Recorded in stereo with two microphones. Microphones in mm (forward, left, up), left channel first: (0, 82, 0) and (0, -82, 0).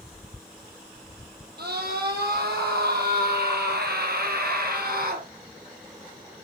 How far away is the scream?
About 5 m.